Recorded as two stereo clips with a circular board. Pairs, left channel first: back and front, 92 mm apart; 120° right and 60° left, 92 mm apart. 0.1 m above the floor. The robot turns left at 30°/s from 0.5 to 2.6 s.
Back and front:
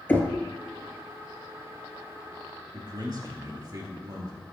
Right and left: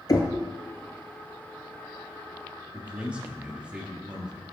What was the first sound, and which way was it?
Knocking, 120° right.